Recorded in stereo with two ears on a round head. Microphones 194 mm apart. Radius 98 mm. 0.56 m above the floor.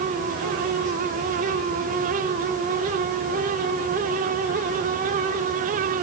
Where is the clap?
No clap in this recording.